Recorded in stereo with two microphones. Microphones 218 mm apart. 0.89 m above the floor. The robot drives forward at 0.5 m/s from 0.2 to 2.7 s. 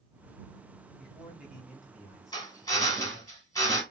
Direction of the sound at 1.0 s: 5° right (ahead or behind).